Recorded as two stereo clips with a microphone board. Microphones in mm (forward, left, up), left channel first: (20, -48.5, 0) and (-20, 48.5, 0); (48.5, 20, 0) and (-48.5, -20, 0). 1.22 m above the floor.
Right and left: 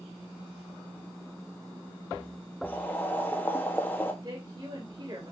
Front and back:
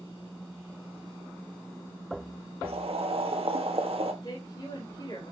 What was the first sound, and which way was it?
Boiling, 140° right.